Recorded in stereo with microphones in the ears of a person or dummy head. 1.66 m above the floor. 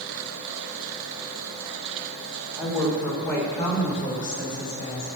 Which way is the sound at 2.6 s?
5° right (ahead or behind).